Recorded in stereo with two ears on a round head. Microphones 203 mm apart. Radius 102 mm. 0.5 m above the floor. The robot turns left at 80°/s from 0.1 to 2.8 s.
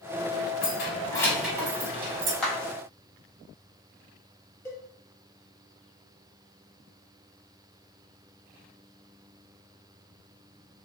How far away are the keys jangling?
About 1.1 m.